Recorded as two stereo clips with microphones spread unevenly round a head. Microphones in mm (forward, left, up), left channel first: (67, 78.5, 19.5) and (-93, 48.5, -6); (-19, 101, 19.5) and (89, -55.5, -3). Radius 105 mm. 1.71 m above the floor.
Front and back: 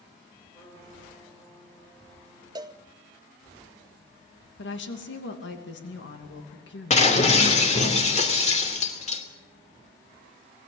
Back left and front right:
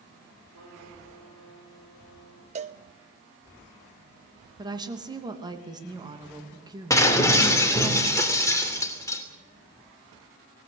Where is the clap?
I don't hear a clap.